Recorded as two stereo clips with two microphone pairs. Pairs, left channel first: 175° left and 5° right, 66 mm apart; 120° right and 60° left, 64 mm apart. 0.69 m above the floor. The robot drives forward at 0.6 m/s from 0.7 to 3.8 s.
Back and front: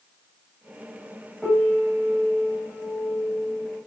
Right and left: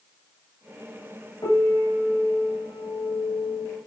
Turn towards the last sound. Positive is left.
turn(degrees=-110)